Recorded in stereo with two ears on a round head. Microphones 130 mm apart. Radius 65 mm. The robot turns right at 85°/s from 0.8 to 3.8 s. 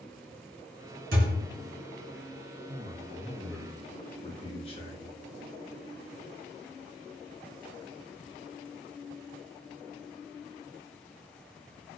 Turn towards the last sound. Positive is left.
turn(degrees=40)